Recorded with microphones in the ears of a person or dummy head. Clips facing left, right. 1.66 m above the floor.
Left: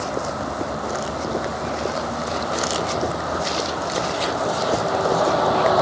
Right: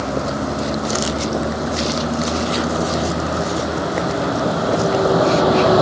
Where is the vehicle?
35° right (ahead or behind).